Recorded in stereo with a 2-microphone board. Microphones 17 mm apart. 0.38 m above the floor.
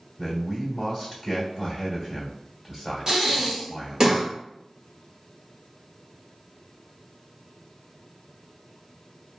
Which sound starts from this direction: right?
Breathing, at 3.1 s.